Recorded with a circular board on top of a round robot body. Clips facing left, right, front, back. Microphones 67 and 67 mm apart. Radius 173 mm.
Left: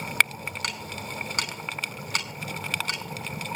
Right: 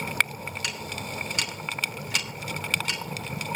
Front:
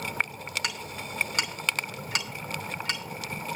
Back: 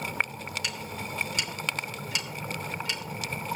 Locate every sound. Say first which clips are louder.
0.6 s ticking: right 1 dB, even; 45° left, 5 m